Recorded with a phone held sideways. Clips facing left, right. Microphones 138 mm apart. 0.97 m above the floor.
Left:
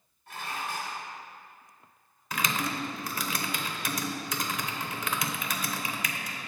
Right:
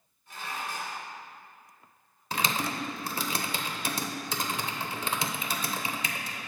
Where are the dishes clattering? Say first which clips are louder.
Left 1 dB; 60° left (ahead or behind), 2 m.